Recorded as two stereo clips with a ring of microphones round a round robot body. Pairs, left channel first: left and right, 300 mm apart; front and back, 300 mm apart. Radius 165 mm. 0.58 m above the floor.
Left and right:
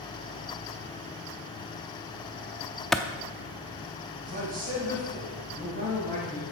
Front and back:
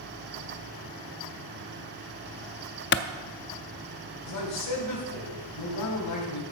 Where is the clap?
Straight ahead, 0.6 m.